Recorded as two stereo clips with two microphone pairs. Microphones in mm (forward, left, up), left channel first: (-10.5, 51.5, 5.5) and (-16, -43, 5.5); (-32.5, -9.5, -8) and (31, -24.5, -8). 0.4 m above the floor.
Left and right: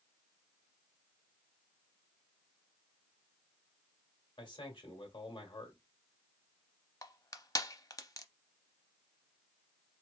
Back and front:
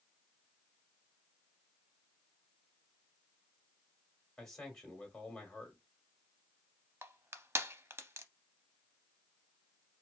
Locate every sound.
4.4 s a man speaking: 85° left, 1.9 m
7.0 s crushing: 35° left, 0.6 m